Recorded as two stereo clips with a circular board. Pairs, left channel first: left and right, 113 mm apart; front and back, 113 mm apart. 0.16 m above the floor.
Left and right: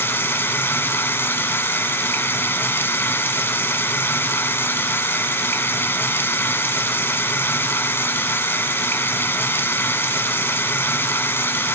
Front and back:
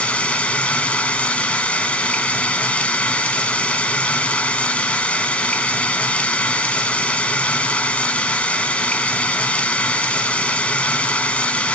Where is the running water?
60° left, 0.8 m.